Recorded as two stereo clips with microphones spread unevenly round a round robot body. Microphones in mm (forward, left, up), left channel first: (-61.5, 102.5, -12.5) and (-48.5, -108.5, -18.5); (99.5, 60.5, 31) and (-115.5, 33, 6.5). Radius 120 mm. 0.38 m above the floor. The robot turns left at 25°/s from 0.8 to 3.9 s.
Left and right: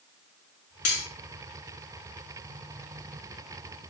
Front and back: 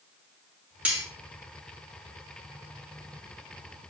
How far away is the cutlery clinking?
About 2.5 m.